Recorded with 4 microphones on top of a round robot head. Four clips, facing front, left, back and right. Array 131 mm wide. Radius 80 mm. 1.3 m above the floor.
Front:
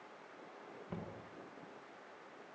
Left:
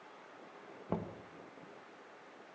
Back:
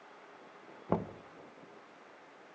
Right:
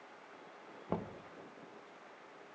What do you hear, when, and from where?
0.9 s knocking: straight behind, 1.2 m